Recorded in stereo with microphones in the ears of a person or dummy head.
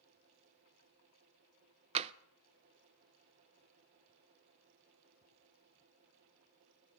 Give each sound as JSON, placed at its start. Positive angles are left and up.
{"t": 1.9, "sound": "tapping", "side_deg": -35, "distance_m": 0.5}